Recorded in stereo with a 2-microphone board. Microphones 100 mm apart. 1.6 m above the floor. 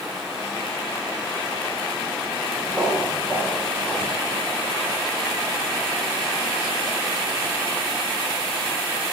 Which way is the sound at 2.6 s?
10° right (ahead or behind).